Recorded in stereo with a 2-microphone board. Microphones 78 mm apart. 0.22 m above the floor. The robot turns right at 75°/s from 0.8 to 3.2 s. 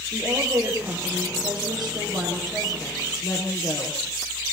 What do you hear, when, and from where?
0.1 s a woman speaking: 145° right, 6.5 m; by 4.0 s 35° left, 6.5 m